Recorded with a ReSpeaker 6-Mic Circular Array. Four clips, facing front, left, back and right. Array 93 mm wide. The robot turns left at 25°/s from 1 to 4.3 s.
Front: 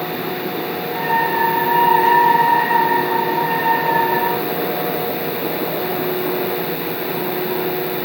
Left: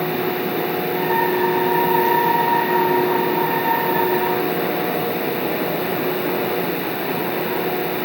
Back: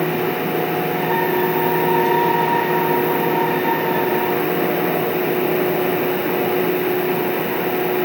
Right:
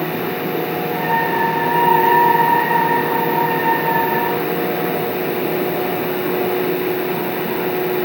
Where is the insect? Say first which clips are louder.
Even, back 3 dB; 100° right, 1.8 m; by 8.1 s straight behind, 1.8 m.